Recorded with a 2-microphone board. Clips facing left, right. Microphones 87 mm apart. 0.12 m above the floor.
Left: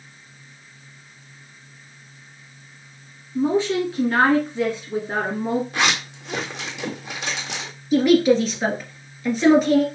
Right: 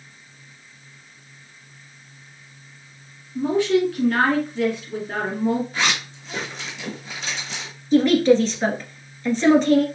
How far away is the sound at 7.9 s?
About 1.6 m.